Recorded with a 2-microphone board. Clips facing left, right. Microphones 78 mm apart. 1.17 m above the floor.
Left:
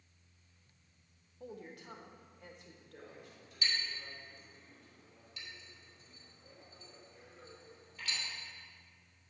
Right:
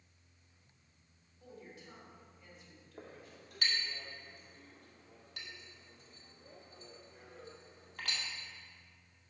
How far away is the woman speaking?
About 1.7 m.